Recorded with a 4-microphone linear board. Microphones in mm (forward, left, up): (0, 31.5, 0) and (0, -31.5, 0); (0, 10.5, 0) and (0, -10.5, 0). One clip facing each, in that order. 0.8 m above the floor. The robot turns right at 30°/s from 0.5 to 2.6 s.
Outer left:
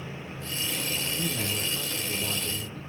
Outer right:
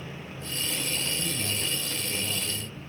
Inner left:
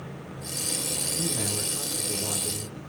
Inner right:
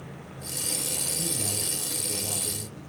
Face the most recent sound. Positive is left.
turn(degrees=130)